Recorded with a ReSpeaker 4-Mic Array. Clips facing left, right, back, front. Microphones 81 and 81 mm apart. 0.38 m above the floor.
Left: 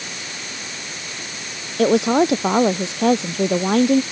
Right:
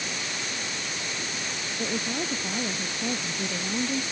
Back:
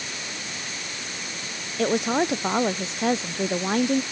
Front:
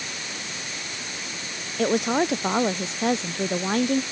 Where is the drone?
No drone in this recording.